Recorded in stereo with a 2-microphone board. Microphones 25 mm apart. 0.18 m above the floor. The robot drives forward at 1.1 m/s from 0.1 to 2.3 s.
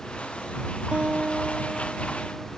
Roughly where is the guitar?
Right.